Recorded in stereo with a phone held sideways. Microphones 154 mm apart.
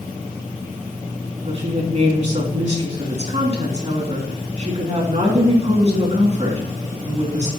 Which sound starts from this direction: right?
A woman speaking, at 1.4 s.